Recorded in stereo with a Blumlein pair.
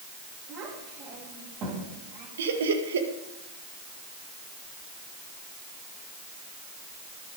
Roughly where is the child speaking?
Ahead right.